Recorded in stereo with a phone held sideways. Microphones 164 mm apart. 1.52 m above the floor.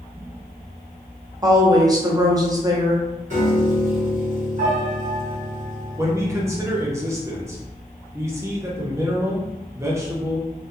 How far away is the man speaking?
About 0.7 m.